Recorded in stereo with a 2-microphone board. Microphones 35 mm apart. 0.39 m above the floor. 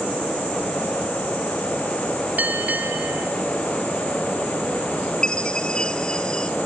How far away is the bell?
About 3.5 m.